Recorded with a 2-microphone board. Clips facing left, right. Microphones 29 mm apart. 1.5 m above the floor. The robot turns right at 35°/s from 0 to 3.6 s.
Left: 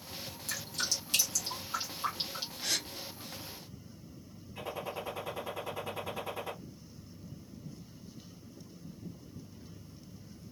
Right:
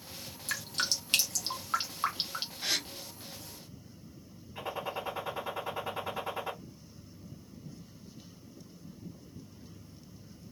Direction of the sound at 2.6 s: 15° right (ahead or behind).